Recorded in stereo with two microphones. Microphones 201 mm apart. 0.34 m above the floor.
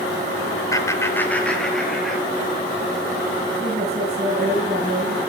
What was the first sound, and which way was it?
Laughter, 15° left (ahead or behind).